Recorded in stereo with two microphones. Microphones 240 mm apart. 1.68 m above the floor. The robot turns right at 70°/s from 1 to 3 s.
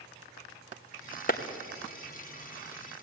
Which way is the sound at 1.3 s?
35° left (ahead or behind).